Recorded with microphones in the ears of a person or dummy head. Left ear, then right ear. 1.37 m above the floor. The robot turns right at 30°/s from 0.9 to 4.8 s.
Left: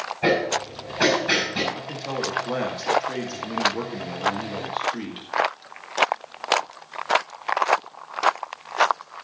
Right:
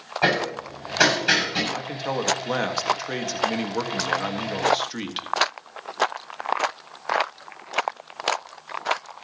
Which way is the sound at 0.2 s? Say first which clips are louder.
Left 1 dB; 75° right (ahead or behind).